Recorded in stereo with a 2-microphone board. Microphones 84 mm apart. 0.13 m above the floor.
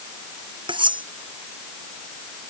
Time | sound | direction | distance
0.7 | cutlery clinking | 80° right | ?